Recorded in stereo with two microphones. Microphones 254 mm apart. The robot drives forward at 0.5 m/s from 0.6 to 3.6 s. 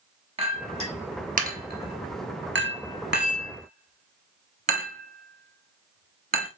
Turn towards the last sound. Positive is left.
turn(degrees=-35)  # may be behind; listen again after turning